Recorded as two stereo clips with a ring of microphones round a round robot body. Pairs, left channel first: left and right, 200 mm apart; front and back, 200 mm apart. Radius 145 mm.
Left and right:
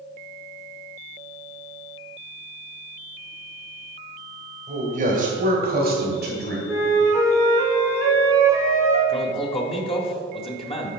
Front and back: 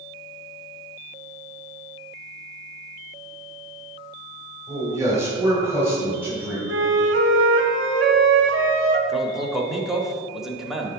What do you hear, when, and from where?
4.7 s a man speaking: 110° right, 1.8 m; by 6.6 s 100° right, 2.5 m
6.7 s a flute: 170° left, 0.8 m
9.1 s a man speaking: 95° left, 1.1 m